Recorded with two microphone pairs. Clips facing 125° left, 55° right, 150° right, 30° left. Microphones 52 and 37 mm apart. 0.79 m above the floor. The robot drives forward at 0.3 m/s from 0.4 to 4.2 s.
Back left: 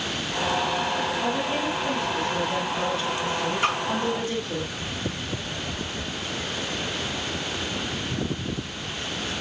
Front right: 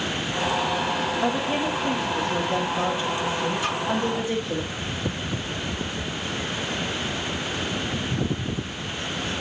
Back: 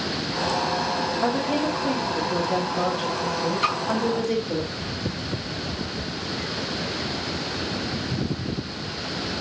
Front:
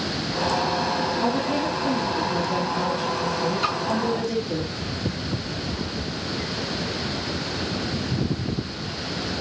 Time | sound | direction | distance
1.2 | a woman speaking | 115° right | 4.5 m
3.6 | a splash | 170° left | 4.5 m